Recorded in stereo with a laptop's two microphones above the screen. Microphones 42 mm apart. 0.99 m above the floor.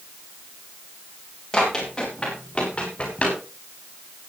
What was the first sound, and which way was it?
Running footsteps, 10° left (ahead or behind).